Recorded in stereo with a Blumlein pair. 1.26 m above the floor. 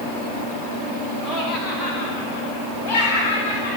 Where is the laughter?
5° left, 2 m; by 3.8 s 45° left, 4 m.